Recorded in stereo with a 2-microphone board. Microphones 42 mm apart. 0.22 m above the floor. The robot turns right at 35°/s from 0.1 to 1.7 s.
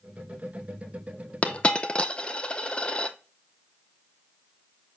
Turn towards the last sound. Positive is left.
turn(degrees=25)  # may be behind; listen again after turning